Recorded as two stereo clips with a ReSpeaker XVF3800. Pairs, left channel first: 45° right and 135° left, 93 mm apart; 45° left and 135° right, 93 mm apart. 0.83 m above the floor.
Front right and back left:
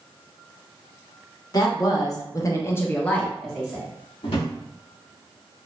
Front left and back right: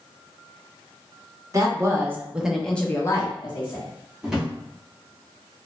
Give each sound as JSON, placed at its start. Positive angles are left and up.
{"t": 1.5, "sound": "a woman speaking", "azimuth_deg": -85, "distance_m": 0.8}
{"t": 4.2, "sound": "a drawer", "azimuth_deg": -50, "distance_m": 0.8}